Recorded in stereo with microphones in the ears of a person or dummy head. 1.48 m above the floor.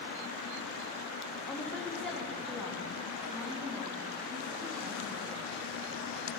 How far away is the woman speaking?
About 1.8 m.